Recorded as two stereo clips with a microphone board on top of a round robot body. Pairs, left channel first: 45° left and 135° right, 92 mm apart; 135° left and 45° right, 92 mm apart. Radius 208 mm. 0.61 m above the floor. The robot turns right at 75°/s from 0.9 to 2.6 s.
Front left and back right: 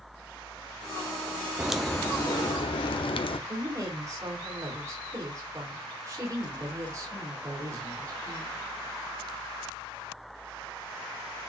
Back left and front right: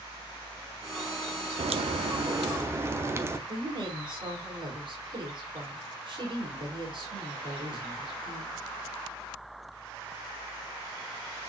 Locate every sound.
1.6 s a crack: 55° right, 0.9 m; by 3.4 s 20° left, 0.9 m
3.5 s a woman speaking: 75° right, 3.5 m